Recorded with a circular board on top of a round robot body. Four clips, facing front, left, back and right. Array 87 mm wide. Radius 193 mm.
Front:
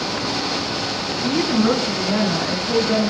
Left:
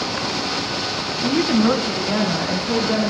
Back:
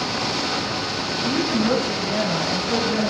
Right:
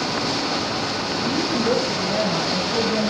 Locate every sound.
1.2 s a woman speaking: 60° left, 4.5 m; by 3.1 s 55° left, 6.5 m